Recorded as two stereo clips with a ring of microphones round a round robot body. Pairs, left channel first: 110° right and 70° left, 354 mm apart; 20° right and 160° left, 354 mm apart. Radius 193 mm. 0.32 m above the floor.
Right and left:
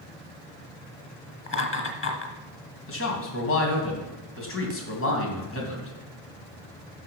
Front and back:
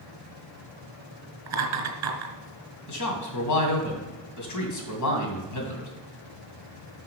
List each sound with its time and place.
1.5 s laughter: 165° right, 2 m
2.9 s a man speaking: 60° right, 2.5 m